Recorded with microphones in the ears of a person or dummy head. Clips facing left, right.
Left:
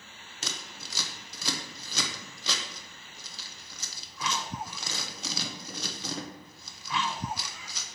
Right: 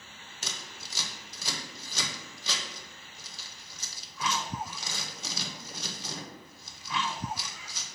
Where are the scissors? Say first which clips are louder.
Left 3 dB; 65° left (ahead or behind), 0.8 m.